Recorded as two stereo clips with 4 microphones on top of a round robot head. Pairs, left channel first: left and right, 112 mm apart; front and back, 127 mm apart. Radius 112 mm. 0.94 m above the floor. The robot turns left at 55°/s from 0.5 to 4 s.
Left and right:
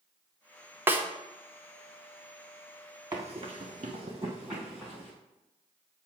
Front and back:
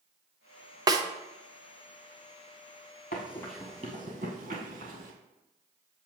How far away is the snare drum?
About 0.8 m.